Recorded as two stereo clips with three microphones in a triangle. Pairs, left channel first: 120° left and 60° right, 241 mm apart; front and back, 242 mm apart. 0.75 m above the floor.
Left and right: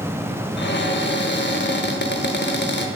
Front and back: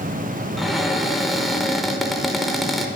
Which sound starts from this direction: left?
A cupboard door, at 0.6 s.